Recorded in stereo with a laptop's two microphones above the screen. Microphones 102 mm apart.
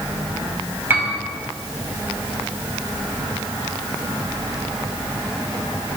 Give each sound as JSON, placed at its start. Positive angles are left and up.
{"t": 0.9, "sound": "a piano", "side_deg": -20, "distance_m": 4.5}